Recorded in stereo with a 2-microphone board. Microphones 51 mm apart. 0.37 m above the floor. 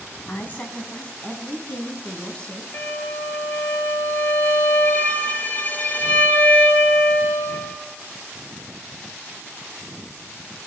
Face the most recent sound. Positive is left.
turn(degrees=40)  # may be behind; listen again after turning